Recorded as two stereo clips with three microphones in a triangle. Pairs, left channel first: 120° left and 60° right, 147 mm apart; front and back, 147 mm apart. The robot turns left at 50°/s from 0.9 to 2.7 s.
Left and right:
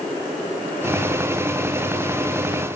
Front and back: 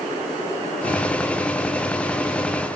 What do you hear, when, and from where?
Only background noise.